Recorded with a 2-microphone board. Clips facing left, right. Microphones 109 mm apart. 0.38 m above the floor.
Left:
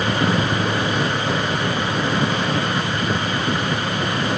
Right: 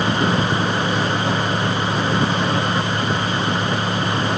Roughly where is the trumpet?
No trumpet in this recording.